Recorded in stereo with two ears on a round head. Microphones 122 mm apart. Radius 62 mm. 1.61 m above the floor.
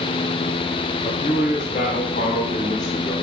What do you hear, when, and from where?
1.0 s a man speaking: 60° left (ahead or behind), 4.5 m